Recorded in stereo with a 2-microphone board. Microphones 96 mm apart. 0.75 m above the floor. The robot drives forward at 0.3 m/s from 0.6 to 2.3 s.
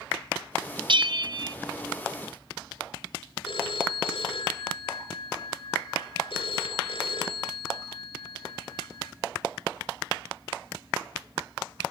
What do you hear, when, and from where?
0.9 s a bell: 60° right (ahead or behind), 0.6 m; by 1.6 s 50° right (ahead or behind), 0.6 m
3.5 s a phone ringing: 60° left (ahead or behind), 2.5 m